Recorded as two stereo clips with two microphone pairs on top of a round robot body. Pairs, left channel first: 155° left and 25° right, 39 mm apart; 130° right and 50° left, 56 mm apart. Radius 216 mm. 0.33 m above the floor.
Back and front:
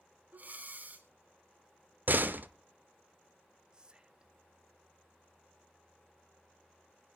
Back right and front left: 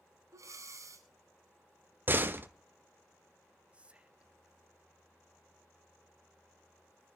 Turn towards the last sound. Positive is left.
turn(degrees=0)